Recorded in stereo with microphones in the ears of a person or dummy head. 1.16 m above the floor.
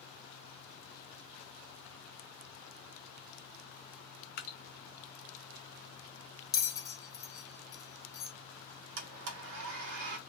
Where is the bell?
15° left (ahead or behind), 0.6 m.